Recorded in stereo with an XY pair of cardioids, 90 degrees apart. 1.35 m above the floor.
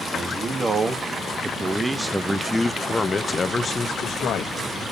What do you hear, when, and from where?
0.1 s a man speaking: 45° right, 3 m; by 4.5 s 60° left, 1.9 m